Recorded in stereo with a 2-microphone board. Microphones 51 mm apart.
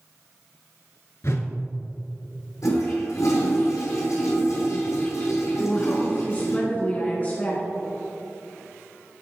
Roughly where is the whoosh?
Left.